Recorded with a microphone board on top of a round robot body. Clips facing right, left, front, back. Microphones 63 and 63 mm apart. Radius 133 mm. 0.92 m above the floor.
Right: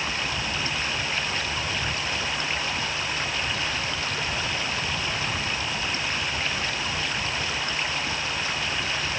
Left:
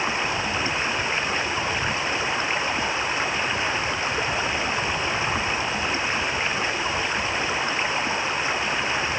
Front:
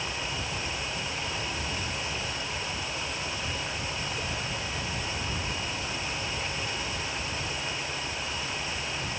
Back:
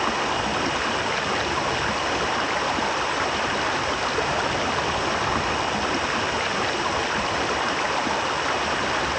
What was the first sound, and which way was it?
Running water, 160° left.